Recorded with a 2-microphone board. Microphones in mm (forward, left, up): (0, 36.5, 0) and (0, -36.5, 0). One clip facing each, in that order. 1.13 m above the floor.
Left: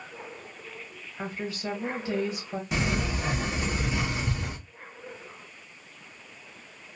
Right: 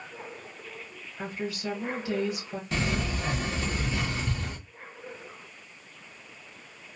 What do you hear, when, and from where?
1.2 s a woman speaking: 30° left (ahead or behind), 1.1 m
2.7 s a sliding door: 15° left (ahead or behind), 0.6 m